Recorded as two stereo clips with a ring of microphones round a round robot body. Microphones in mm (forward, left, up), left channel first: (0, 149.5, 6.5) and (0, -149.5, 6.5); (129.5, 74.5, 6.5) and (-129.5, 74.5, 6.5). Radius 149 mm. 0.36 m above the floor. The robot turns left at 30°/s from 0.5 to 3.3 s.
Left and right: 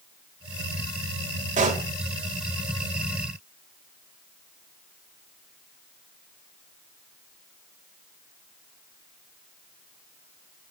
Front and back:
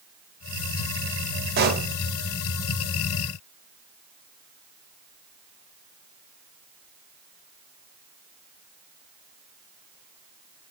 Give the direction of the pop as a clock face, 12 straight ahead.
5 o'clock.